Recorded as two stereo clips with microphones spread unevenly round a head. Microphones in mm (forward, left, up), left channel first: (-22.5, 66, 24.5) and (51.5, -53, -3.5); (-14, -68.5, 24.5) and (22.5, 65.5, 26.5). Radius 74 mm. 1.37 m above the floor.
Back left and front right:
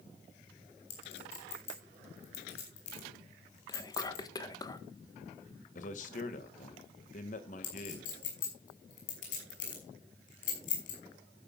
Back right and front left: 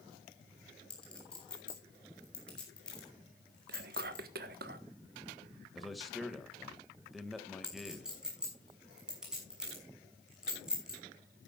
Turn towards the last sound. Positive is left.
turn(degrees=160)